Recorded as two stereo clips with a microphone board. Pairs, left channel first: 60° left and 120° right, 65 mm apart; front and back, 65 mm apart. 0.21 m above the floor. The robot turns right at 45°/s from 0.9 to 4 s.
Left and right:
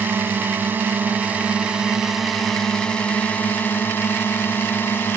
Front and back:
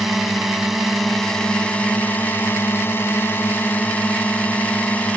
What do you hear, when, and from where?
0.0 s a drone: 95° right; by 5.2 s 45° left